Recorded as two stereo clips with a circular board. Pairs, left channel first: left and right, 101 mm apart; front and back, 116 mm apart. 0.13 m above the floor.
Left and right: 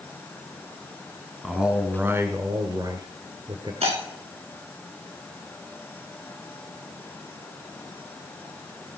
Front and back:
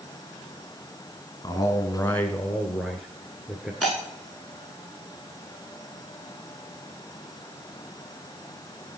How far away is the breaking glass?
About 7.5 m.